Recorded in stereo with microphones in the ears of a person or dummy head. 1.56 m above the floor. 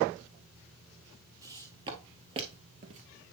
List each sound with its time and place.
1.4 s footsteps: 25° right (ahead or behind), 2 m; by 3.0 s 40° right (ahead or behind), 1.9 m